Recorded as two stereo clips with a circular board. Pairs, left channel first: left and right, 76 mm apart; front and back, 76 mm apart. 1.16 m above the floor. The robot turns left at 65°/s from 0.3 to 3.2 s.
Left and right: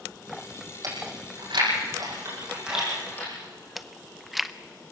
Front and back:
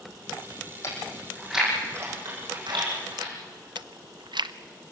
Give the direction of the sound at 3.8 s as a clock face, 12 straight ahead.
6 o'clock.